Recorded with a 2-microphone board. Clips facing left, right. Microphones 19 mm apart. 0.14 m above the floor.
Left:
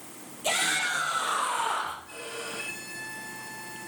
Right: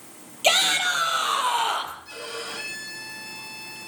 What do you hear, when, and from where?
0.4 s a shout: 70° right (ahead or behind), 5 m; by 1.9 s 65° right (ahead or behind), 4.5 m
2.0 s a violin: 70° right (ahead or behind), 5.5 m